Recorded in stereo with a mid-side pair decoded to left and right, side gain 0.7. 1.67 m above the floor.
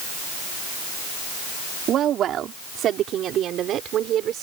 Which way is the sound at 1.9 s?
45° right.